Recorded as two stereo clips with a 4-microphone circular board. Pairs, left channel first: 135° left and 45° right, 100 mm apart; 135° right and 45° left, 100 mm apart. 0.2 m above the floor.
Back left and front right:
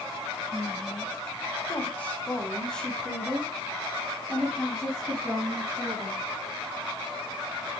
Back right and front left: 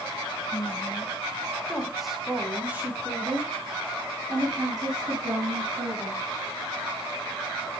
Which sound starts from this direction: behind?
A woman speaking, at 0.5 s.